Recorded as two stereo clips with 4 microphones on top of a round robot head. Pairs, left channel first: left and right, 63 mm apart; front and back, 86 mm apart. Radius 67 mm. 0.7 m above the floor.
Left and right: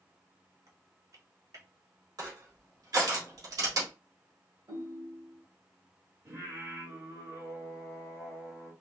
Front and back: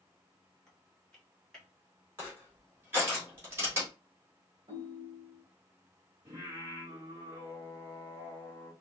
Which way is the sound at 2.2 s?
115° right.